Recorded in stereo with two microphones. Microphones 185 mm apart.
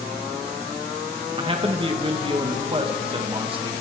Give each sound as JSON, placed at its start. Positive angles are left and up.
{"t": 1.4, "sound": "a man speaking", "side_deg": -30, "distance_m": 2.0}